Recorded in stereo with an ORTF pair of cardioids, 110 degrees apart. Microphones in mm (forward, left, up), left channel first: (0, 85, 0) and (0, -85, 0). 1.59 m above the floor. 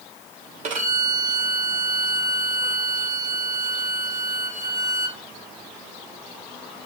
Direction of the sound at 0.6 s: 45° right.